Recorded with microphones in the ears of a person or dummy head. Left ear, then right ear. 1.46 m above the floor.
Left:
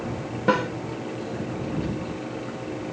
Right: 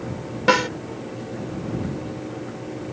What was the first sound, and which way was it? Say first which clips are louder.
A snare drum: right 4 dB; 45° right (ahead or behind).